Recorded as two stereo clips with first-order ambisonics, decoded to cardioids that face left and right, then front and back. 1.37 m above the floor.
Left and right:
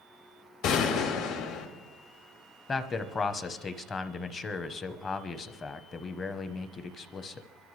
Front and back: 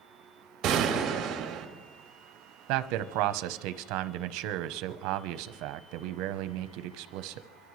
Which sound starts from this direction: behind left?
A gunshot, at 0.6 s.